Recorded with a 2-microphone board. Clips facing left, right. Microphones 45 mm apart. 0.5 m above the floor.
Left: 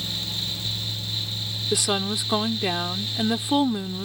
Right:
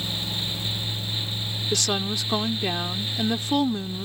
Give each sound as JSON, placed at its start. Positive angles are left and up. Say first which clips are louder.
{"t": 1.7, "sound": "a woman speaking", "louder": "left 2 dB", "side_deg": 10}